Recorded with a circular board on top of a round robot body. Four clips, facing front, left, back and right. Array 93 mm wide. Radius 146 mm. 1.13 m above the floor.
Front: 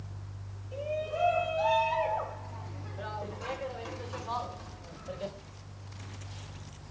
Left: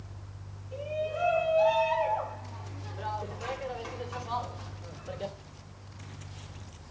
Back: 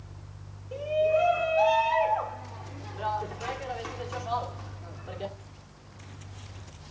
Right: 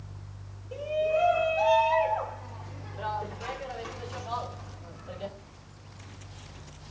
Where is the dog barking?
I don't hear a dog barking.